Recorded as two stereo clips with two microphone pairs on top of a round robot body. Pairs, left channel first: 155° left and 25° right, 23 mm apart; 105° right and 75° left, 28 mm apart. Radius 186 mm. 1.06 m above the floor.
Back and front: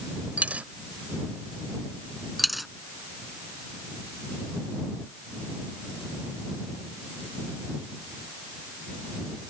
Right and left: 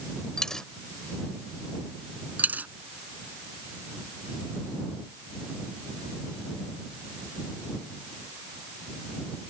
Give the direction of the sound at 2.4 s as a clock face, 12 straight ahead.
10 o'clock.